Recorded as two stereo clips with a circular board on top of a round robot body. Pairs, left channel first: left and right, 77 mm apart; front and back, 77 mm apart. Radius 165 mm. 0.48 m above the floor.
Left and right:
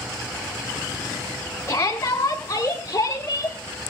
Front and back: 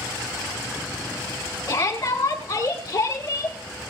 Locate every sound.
1.7 s a shout: 40° left, 5.5 m; by 3.6 s 45° left, 6 m